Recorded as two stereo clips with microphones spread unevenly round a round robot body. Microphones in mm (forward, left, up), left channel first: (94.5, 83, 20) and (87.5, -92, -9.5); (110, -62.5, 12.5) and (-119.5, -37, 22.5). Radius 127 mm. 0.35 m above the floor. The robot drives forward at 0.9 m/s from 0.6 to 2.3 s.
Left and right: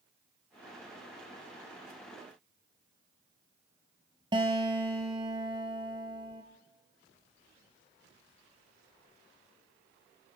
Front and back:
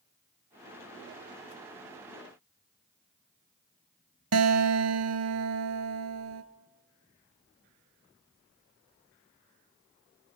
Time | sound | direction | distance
4.3 | a guitar | 165° right | 1.3 m